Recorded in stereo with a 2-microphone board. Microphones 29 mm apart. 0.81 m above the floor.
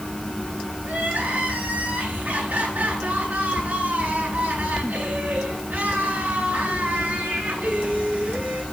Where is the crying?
80° right, 9.5 m.